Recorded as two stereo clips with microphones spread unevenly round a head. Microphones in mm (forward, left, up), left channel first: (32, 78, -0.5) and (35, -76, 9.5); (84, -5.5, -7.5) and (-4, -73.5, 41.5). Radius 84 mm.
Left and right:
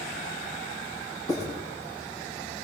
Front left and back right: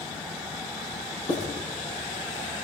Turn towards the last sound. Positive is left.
turn(degrees=25)